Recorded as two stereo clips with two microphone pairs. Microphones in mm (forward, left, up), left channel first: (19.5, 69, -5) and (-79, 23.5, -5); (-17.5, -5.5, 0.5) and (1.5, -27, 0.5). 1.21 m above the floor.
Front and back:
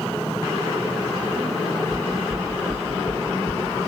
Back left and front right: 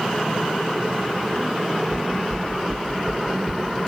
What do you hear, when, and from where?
1.9 s knocking: 155° left, 2.5 m